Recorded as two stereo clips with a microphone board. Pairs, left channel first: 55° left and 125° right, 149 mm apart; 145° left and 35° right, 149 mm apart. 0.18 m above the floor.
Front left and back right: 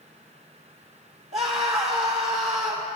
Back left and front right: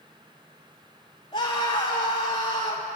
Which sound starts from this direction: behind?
A scream, at 1.3 s.